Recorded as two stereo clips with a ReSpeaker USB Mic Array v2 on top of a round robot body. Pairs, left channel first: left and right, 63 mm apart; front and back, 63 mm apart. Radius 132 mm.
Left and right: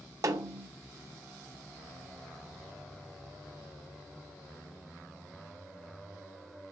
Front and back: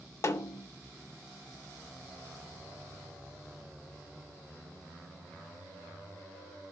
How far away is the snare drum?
About 0.6 m.